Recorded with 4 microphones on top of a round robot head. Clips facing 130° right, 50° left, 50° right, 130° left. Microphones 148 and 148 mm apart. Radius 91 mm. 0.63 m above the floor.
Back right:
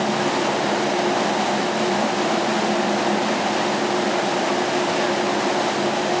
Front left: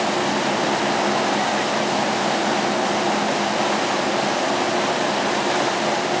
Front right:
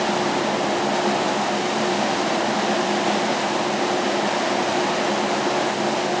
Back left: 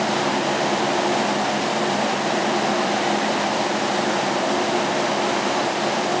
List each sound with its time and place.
Only background noise.